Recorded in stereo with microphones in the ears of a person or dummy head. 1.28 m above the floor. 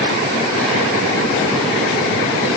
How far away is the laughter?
I don't hear laughter.